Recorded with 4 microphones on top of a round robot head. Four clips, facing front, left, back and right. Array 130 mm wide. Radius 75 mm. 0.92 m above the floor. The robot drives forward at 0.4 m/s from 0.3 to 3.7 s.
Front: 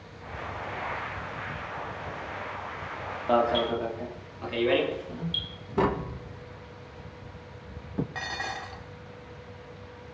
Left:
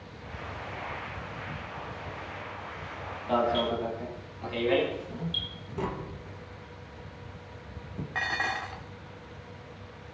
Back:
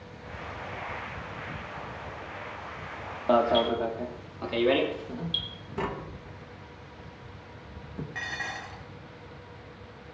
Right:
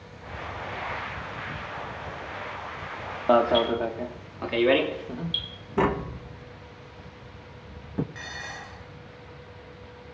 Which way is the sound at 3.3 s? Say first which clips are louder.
Right 6 dB, back 1 dB; 110° right.